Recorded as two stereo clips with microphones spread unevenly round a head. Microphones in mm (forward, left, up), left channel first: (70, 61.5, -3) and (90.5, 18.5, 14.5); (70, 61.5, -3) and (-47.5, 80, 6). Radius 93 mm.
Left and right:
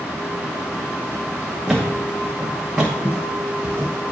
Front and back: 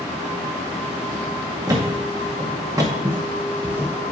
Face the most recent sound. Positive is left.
turn(degrees=-130)